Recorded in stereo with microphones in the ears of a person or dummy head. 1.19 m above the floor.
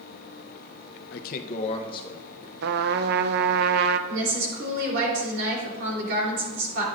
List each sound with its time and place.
1.1 s a man speaking: 60° left (ahead or behind), 0.7 m; by 2.5 s 20° left (ahead or behind), 2.0 m
2.6 s a trumpet: 65° right (ahead or behind), 0.6 m
4.1 s a woman speaking: 70° right (ahead or behind), 4 m